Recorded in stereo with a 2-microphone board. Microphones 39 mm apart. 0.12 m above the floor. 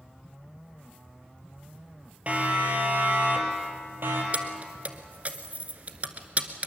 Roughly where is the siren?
Right.